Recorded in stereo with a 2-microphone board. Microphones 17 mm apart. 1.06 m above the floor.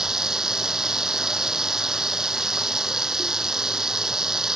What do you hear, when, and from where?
0.0 s running water: 35° right (ahead or behind)